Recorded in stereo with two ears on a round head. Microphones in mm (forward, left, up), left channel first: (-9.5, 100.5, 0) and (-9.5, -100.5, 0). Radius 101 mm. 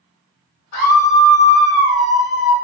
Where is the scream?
65° left (ahead or behind), 2 m; by 2.5 s 40° left (ahead or behind), 0.7 m.